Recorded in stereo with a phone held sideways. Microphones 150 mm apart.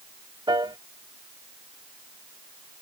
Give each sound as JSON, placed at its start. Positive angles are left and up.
{"t": 0.5, "sound": "a piano", "side_deg": -30}